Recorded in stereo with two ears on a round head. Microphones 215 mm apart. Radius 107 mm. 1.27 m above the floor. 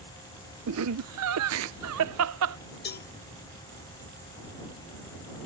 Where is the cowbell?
45° left (ahead or behind).